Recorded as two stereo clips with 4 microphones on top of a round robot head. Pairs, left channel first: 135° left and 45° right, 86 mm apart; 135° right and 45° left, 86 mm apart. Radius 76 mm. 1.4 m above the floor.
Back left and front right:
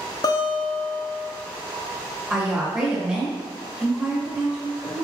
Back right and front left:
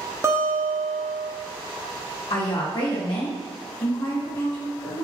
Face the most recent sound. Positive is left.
turn(degrees=-125)